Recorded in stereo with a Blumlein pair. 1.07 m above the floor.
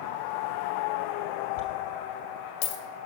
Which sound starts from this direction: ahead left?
A dropped coin, at 1.6 s.